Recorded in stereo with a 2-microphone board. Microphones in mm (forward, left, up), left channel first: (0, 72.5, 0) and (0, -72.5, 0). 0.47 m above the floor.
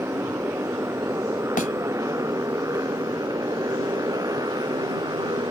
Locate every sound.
0.0 s a motorcycle: 15° right (ahead or behind); by 5.5 s 25° right (ahead or behind)
1.6 s a thud: 70° left (ahead or behind)